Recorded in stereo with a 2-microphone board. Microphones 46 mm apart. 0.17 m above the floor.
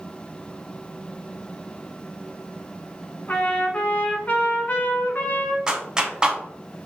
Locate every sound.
3.3 s a trumpet: 35° left (ahead or behind), 1.0 m
5.7 s a clap: 15° right (ahead or behind), 0.8 m